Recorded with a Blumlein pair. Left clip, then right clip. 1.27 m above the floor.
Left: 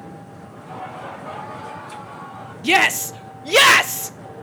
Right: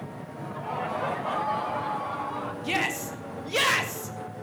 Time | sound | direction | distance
0.5 | laughter | 35° right | 2.5 m
2.6 | a shout | 60° left | 0.6 m